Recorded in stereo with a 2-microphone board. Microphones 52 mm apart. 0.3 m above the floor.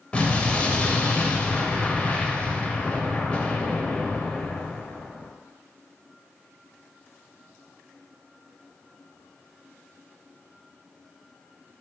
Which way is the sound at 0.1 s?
25° left (ahead or behind).